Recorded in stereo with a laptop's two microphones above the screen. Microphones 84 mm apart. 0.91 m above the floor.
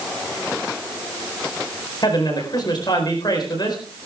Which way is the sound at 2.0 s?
55° left (ahead or behind).